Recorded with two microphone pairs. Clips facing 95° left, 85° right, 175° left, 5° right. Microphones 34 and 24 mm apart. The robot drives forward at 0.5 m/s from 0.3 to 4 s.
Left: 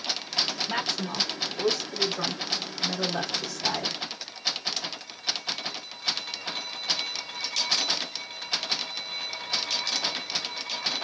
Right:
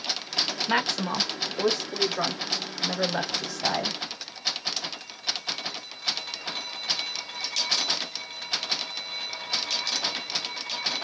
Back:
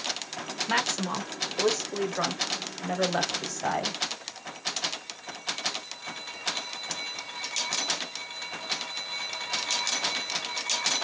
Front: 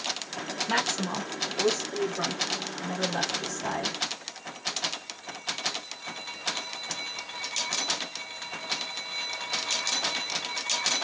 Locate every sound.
0.7 s a woman speaking: 100° right, 1.3 m; by 4.0 s 150° right, 2.5 m